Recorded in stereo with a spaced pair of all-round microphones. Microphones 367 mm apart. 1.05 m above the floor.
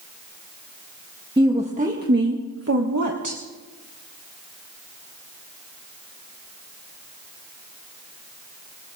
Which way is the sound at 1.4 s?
10° right (ahead or behind).